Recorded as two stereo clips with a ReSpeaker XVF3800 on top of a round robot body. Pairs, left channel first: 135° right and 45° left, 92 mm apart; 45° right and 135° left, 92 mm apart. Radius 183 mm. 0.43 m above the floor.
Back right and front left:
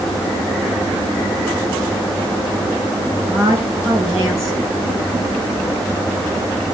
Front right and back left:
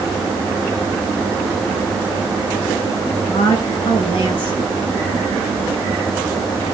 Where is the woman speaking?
15° right, 6 m.